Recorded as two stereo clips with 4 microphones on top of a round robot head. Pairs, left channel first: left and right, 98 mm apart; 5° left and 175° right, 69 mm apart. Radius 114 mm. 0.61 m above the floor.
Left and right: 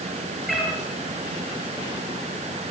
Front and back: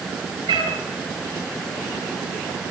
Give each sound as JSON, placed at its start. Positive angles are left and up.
{"t": 0.5, "sound": "a cat meowing", "azimuth_deg": 175, "distance_m": 6.5}